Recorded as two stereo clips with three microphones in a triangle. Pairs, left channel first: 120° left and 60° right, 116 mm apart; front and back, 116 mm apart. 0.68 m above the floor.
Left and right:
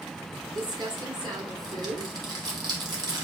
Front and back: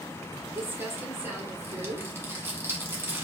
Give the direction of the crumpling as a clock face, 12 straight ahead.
4 o'clock.